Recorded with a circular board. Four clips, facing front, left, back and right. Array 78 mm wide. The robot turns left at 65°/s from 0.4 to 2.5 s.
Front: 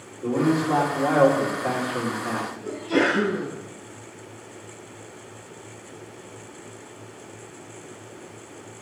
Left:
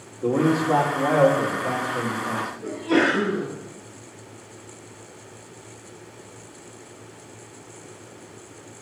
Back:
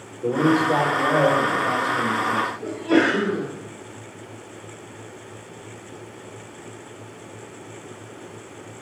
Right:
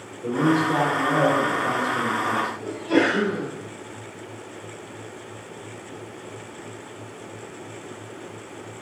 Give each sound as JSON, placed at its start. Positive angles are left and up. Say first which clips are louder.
{"t": 0.2, "sound": "a man speaking", "louder": "even, back 3 dB", "azimuth_deg": 90, "distance_m": 1.8}
{"t": 2.6, "sound": "a sneeze", "louder": "left 1 dB, back 3 dB", "azimuth_deg": 165, "distance_m": 2.0}